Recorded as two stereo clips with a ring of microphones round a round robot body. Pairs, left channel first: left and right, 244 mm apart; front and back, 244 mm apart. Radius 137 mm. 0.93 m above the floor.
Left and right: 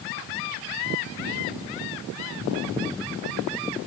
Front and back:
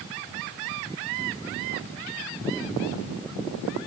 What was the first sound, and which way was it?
Only background noise.